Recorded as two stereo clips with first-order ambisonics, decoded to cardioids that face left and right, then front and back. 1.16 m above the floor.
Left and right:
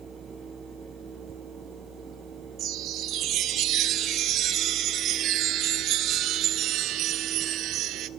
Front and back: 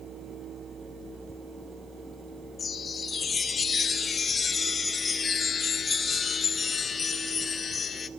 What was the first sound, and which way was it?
A chime, 65° right.